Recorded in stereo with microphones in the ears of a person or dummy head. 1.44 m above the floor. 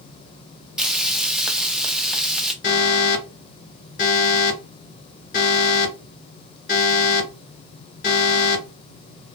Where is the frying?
Centre (ahead or behind), 0.6 m.